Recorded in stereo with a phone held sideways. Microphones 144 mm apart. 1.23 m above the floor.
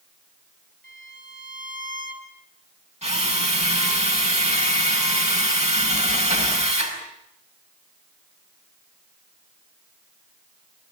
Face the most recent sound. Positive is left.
turn(degrees=-50)  # may be behind; listen again after turning